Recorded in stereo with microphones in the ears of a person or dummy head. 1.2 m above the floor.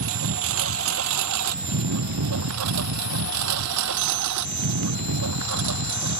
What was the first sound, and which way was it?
A lawn mower, 70° right (ahead or behind).